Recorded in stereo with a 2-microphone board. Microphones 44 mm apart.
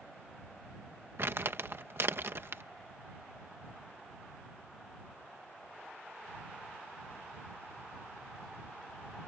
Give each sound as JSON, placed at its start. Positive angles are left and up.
{"t": 1.2, "sound": "crumpling", "side_deg": -60}